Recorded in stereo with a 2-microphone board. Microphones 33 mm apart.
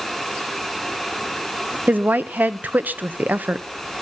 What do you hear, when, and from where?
1.9 s a woman speaking: 65° right (ahead or behind), 0.9 m